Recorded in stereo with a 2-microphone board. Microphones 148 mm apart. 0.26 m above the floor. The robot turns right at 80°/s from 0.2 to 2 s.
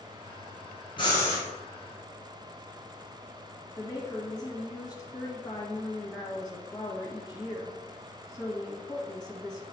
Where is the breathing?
140° left, 2.5 m; by 1.4 s 175° left, 2.5 m.